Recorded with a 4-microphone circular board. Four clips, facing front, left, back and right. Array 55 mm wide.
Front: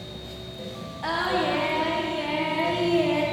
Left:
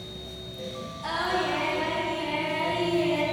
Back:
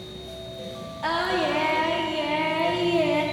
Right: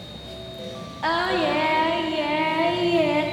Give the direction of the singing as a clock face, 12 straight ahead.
3 o'clock.